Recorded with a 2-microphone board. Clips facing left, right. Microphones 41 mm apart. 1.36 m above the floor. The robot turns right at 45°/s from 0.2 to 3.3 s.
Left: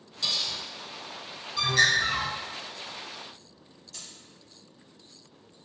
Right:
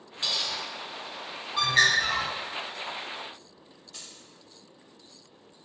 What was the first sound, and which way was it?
Cutlery clinking, 35° right (ahead or behind).